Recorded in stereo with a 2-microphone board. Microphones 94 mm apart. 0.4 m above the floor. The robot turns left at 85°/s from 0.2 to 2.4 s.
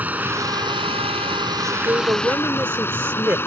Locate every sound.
0.0 s running water: 20° right; by 3.5 s 155° left
1.6 s a woman speaking: 75° right; by 3.4 s 140° right